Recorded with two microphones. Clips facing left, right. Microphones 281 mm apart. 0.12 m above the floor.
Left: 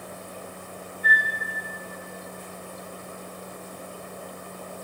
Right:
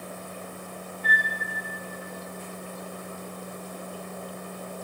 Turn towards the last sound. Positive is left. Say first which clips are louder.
# left 2 dB
turn(degrees=15)  # may be behind; listen again after turning